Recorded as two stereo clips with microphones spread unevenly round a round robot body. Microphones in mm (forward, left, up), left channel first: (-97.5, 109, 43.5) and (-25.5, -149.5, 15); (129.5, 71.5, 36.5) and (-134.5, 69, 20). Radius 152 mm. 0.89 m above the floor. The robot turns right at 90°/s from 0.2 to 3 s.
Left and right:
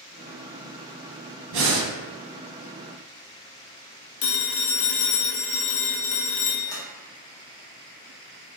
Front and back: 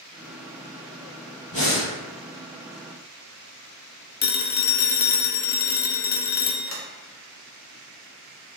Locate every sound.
1.5 s breathing: 65° right, 1.1 m; by 1.9 s 30° right, 1.1 m
4.2 s a phone ringing: 60° left, 0.6 m
6.7 s a sliding door: 25° left, 1.3 m